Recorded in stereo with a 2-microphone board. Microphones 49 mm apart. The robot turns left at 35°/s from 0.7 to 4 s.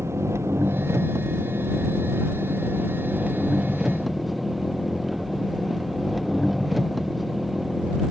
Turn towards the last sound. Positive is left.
turn(degrees=180)